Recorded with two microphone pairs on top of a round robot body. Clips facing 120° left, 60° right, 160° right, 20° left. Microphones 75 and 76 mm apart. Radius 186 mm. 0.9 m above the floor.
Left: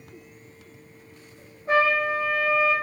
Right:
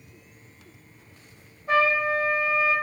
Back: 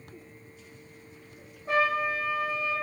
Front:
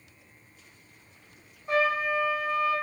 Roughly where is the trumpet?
Behind left.